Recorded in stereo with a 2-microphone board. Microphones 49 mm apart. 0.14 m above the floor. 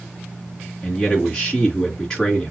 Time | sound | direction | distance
0.8 | a man speaking | 20° left (ahead or behind) | 2 m